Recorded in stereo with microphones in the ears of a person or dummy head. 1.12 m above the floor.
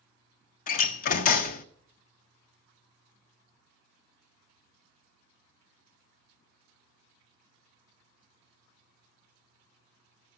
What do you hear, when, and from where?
0.7 s a door slam: 45° left (ahead or behind), 0.6 m